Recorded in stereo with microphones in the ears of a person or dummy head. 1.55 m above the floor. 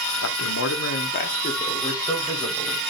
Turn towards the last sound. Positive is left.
turn(degrees=10)  # may be behind; listen again after turning